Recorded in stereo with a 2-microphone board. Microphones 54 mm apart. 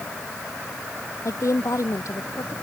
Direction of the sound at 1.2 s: 75° left (ahead or behind).